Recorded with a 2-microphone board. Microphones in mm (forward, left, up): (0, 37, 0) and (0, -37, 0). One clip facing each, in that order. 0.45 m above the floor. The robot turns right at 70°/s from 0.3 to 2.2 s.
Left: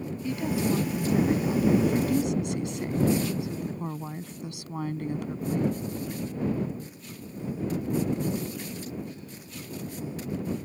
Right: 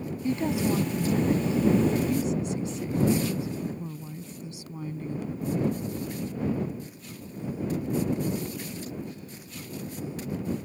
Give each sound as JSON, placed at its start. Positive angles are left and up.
{"t": 0.2, "sound": "a woman speaking", "azimuth_deg": -40}